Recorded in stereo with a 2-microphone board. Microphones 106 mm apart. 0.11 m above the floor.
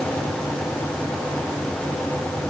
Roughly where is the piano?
No piano in this recording.